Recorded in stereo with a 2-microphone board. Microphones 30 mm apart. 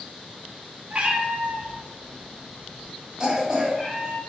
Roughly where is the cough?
Right.